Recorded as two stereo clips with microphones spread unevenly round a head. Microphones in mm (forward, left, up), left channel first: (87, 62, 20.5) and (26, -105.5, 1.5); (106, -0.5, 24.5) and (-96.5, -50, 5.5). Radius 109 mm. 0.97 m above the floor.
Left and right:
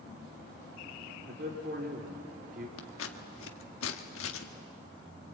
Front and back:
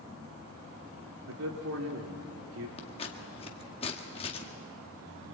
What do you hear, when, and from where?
1.3 s a man speaking: 155° right, 2.5 m
2.8 s scissors: 80° left, 1.7 m